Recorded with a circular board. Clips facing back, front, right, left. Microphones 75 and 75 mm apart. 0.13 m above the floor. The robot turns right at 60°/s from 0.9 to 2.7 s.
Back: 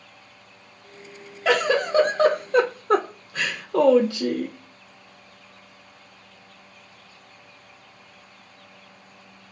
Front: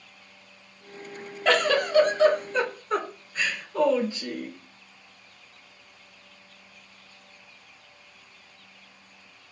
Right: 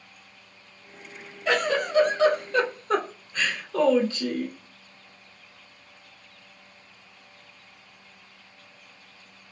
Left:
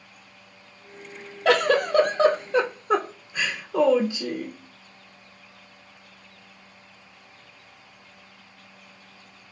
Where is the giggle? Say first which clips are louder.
Back 2 dB, left 5 dB; 95° left, 0.7 m; by 4.6 s 170° left, 0.7 m.